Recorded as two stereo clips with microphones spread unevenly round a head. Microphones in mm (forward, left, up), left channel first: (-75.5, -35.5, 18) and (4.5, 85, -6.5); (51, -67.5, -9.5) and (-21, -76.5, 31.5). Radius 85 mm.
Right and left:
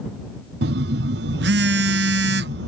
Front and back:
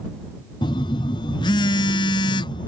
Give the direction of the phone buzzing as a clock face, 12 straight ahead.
11 o'clock.